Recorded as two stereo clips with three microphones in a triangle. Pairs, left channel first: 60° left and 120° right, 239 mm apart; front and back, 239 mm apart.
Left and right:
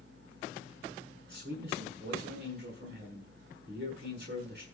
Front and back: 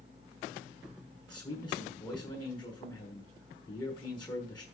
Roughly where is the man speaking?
Right.